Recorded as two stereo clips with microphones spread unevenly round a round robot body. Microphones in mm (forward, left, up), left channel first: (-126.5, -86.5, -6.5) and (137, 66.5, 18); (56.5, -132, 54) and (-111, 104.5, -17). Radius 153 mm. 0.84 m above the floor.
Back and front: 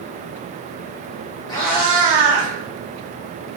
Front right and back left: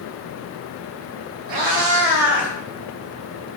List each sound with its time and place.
1.5 s a cat meowing: 135° left, 0.8 m; by 2.5 s 20° left, 1.0 m